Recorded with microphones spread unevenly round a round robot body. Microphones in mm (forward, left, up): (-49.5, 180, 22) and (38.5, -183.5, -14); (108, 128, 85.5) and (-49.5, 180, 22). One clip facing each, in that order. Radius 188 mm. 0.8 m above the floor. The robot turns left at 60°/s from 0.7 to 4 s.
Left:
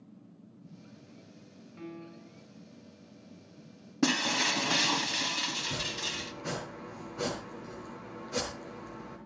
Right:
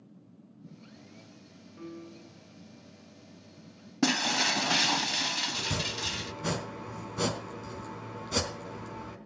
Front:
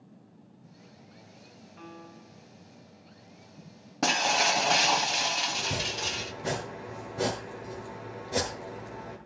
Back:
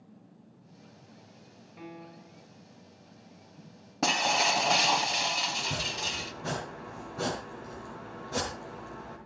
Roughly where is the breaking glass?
Ahead.